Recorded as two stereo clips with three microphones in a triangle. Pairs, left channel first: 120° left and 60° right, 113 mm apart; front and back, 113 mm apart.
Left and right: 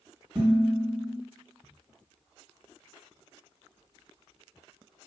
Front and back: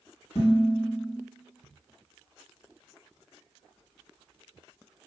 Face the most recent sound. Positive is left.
turn(degrees=-15)